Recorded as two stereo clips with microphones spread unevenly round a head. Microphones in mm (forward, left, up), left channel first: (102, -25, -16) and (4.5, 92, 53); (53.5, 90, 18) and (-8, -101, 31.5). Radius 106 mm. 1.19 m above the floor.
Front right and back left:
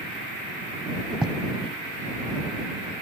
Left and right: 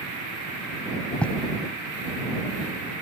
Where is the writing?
160° left.